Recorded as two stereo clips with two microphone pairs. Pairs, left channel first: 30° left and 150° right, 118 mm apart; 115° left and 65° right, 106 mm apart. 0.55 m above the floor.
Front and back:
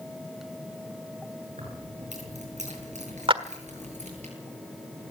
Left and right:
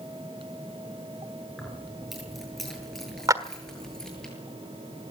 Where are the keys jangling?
155° right, 7 m; by 4.3 s 165° right, 8.5 m.